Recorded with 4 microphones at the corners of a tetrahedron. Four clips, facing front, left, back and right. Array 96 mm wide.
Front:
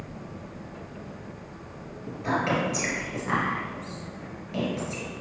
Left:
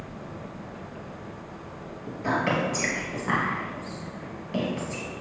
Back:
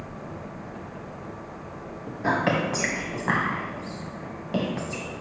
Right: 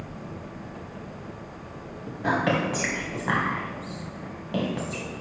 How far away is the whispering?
About 2.5 m.